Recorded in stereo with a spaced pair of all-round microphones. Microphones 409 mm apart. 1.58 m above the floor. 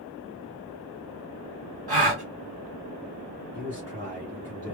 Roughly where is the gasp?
Right.